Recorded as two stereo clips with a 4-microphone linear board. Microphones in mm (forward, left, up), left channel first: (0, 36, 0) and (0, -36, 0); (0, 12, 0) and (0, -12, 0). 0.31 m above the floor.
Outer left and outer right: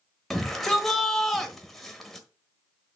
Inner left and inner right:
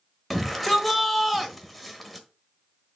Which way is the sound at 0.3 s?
5° left (ahead or behind).